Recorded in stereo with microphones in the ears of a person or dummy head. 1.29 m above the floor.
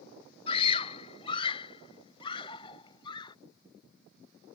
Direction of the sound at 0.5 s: 25° left (ahead or behind).